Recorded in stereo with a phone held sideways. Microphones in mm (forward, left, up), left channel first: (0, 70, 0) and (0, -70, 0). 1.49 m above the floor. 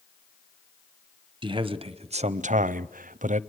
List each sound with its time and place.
1.4 s a man speaking: 35° right (ahead or behind), 1.1 m; by 3.4 s 60° right (ahead or behind), 0.6 m